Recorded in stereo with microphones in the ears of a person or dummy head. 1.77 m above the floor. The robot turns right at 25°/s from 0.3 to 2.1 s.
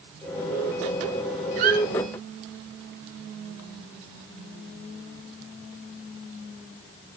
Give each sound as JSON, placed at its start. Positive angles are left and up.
{"t": 1.6, "sound": "a squeak", "side_deg": -40, "distance_m": 2.0}